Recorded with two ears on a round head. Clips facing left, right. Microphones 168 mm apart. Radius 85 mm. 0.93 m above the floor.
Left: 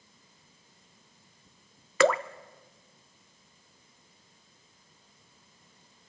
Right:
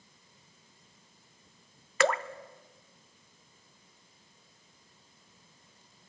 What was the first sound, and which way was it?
Dripping, 70° left (ahead or behind).